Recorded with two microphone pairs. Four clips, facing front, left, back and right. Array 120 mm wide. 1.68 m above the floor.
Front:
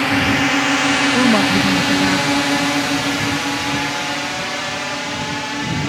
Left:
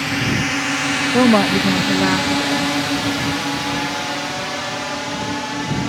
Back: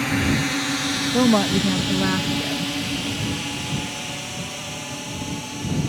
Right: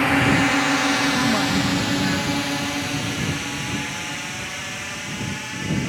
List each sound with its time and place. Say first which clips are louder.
0.0 s a drone: right 3 dB, front 5 dB; 40° right; by 5.9 s 55° left
1.1 s a woman speaking: left 7 dB, even; 90° left